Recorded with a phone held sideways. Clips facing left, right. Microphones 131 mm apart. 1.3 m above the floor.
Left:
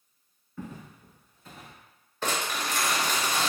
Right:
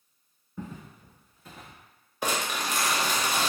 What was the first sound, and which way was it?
Footsteps, 20° right (ahead or behind).